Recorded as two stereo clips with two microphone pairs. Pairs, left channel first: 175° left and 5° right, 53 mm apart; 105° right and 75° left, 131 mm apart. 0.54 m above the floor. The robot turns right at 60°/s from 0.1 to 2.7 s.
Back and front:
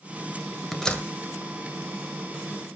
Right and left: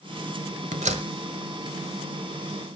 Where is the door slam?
85° left, 1.6 m; by 1.1 s 110° left, 1.6 m.